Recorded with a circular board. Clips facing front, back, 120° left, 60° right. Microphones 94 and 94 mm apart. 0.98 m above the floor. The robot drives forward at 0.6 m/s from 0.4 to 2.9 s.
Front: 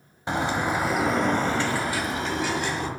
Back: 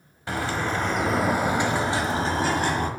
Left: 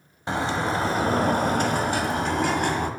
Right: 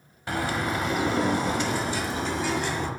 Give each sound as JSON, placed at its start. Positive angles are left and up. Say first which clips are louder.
{"t": 0.3, "sound": "a bird", "louder": "front 2 dB, left 3 dB", "azimuth_deg": 60, "distance_m": 1.1}